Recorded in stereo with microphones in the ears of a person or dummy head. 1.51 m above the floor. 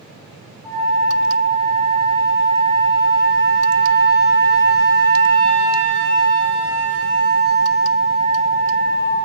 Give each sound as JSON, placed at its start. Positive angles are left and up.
{"t": 0.6, "sound": "a flute", "side_deg": -75, "distance_m": 1.9}